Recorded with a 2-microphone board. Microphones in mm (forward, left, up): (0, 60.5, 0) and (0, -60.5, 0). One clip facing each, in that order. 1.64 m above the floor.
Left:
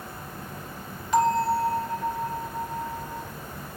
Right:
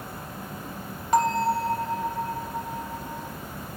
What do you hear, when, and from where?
0.0 s an insect: 50° right (ahead or behind), 5 m
1.1 s a bell: 45° right (ahead or behind), 2 m